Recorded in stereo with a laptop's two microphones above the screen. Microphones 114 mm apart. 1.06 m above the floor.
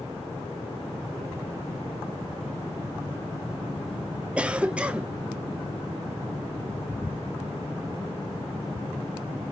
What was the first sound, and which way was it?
A cough, 10° right (ahead or behind).